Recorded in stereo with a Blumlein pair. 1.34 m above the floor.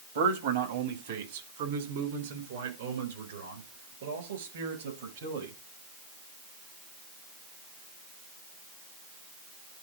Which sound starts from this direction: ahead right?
A man speaking, at 0.1 s.